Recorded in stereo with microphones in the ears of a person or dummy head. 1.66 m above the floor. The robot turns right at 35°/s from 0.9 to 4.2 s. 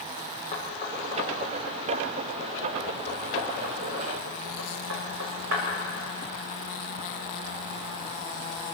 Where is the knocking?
35° left (ahead or behind), 5.5 m; by 5.6 s 80° right, 5.5 m.